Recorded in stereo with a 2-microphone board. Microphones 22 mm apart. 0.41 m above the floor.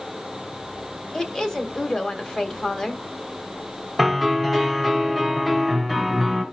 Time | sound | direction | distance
1.1 | a woman speaking | 40° left (ahead or behind) | 1.6 m
4.0 | a piano | 15° left (ahead or behind) | 2.5 m